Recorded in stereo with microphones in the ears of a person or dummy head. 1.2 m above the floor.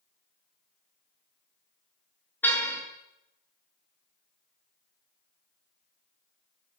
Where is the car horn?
15° left (ahead or behind), 7.5 m.